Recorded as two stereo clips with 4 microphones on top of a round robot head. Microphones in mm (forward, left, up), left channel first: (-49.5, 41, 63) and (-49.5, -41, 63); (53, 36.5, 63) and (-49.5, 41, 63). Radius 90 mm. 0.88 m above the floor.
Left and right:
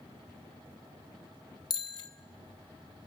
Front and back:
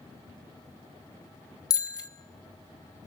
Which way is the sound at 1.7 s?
50° left.